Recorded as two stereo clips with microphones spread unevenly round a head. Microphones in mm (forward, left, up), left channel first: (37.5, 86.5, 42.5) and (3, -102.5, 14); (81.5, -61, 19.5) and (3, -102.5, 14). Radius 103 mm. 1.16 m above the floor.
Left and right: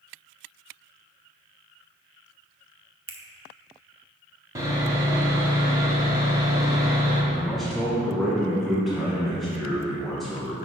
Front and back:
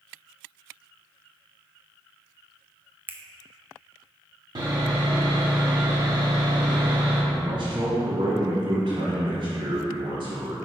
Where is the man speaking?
175° left, 1.2 m.